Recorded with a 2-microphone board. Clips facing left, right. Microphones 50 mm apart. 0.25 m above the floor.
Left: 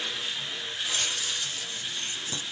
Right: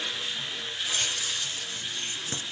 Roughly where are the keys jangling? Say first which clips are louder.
Even; right.